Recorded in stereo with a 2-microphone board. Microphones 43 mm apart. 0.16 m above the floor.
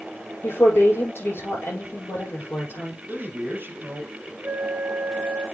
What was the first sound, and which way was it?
A woman speaking, 70° left (ahead or behind).